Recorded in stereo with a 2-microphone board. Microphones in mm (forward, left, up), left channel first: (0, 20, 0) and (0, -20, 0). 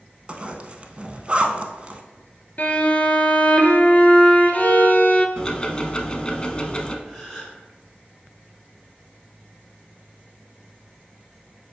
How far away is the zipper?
About 0.6 m.